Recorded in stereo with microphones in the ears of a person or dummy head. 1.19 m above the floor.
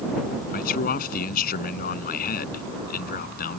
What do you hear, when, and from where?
0.5 s a man speaking: 50° left (ahead or behind)